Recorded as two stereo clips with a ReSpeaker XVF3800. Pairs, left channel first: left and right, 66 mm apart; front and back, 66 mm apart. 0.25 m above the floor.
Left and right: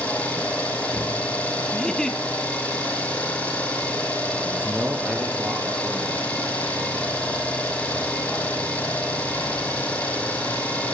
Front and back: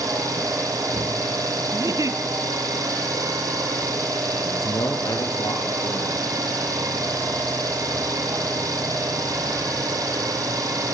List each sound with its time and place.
0.0 s an engine running: 160° left, 5.5 m
1.7 s a giggle: 170° left, 1.6 m
4.4 s a man speaking: 15° right, 5 m